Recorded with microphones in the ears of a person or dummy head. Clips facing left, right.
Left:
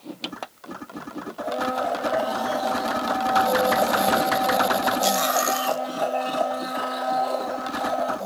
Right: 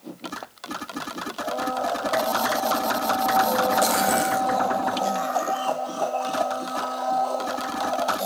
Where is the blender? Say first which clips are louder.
Left 1 dB; 20° left (ahead or behind), 0.8 m.